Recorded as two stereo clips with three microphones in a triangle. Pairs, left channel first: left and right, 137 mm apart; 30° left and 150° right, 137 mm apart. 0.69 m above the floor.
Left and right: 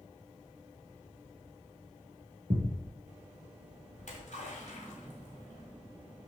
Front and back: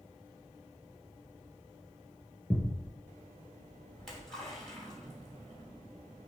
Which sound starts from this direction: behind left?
A splash, at 4.0 s.